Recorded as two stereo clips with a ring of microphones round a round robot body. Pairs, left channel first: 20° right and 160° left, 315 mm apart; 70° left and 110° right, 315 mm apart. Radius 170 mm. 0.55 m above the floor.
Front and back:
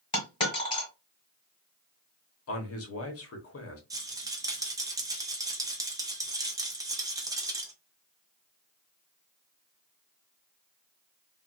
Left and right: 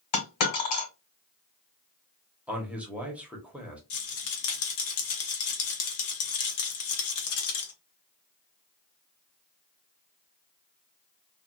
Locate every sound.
0.1 s a dropped coin: 55° left, 1.4 m
2.5 s a man speaking: 30° right, 1.0 m
3.9 s a rattle: 80° left, 0.7 m